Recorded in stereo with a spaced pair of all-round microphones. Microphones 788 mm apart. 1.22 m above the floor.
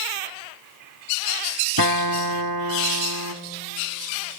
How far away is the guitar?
About 0.8 m.